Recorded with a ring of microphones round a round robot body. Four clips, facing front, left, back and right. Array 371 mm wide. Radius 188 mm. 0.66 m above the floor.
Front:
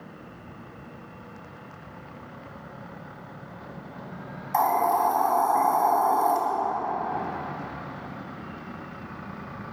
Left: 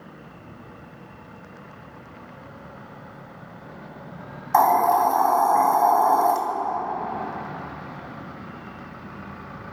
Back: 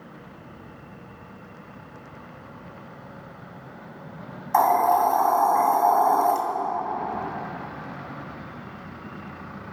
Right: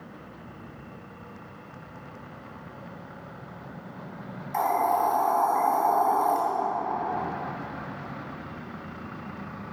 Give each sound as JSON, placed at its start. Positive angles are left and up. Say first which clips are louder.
{"t": 4.5, "sound": "a hiss", "louder": "left 7 dB, back 4 dB", "azimuth_deg": 115, "distance_m": 2.5}